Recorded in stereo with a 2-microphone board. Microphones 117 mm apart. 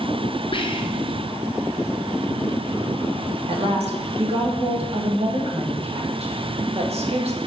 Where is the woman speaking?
65° right (ahead or behind), 1.6 m.